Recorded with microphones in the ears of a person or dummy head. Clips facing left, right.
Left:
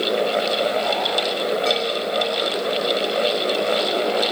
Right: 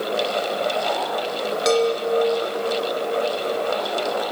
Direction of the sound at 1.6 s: 70° right (ahead or behind).